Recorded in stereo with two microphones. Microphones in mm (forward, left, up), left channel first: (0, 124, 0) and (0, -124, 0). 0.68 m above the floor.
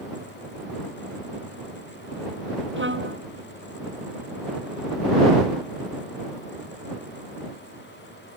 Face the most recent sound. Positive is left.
turn(degrees=-50)  # may be behind; listen again after turning